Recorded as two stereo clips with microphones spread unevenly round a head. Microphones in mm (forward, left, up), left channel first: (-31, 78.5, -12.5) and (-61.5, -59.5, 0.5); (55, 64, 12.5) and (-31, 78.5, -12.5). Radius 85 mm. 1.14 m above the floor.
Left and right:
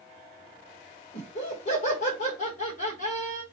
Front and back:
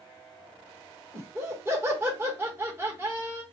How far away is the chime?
No chime in this recording.